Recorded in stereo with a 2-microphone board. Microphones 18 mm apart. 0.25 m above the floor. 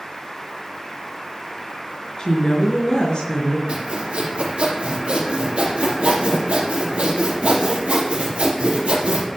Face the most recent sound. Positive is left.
turn(degrees=-80)